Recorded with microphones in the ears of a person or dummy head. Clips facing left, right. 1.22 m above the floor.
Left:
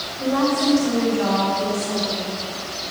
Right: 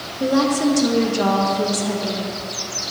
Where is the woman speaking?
35° right (ahead or behind), 1.0 m; by 2.3 s 75° right (ahead or behind), 1.7 m.